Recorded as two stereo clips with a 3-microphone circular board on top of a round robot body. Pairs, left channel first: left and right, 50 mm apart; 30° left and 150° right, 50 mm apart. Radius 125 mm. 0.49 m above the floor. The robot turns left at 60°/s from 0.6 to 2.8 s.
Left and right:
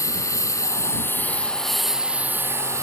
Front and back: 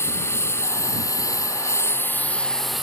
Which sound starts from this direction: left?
A lawn mower, at 0.0 s.